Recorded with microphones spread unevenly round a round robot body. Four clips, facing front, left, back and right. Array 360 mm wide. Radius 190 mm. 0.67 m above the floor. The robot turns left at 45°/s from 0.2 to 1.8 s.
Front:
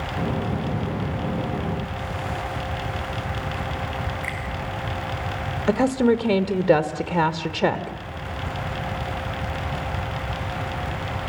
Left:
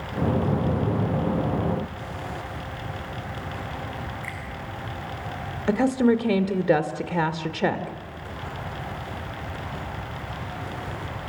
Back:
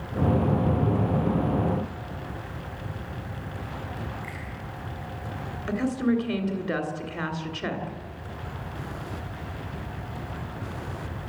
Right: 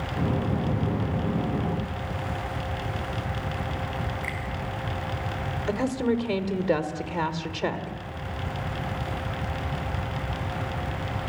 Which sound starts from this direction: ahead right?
A finger snap, at 4.2 s.